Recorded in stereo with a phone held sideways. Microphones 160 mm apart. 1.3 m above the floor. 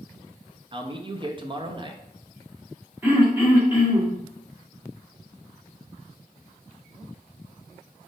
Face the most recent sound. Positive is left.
turn(degrees=-10)  # may be behind; listen again after turning